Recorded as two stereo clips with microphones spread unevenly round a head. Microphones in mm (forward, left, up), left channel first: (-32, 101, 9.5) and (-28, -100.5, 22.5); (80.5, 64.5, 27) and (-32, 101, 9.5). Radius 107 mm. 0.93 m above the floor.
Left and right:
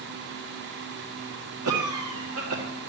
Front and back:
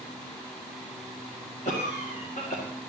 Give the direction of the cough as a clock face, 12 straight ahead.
2 o'clock.